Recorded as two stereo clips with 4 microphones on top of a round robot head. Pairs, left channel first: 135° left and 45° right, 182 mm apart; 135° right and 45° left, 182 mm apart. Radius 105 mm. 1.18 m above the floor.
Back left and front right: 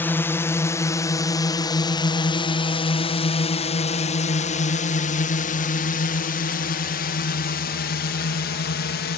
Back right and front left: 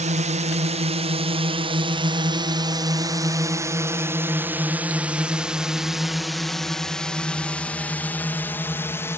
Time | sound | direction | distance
0.0 | a drone | 65° left | ?